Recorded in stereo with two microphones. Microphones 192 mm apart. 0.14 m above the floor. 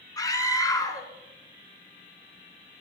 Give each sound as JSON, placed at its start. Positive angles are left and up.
{"t": 0.2, "sound": "a scream", "side_deg": 20, "distance_m": 1.3}